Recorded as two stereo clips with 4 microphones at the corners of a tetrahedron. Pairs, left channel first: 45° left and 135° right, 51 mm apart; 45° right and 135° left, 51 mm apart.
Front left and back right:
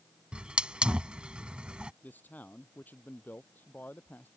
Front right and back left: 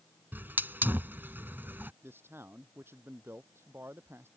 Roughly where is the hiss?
Behind.